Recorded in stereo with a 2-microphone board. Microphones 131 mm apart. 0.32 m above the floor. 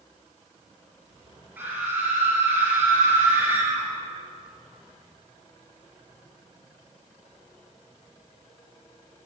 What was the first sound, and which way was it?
A scream, 15° right (ahead or behind).